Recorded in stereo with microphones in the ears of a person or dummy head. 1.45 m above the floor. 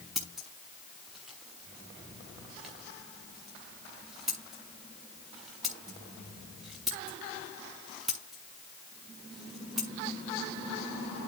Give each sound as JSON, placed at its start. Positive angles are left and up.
{"t": 0.1, "sound": "scissors", "side_deg": -5, "distance_m": 1.1}